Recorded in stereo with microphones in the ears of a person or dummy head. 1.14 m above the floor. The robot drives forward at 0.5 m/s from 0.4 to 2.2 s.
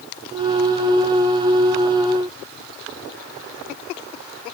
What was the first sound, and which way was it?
Only background noise.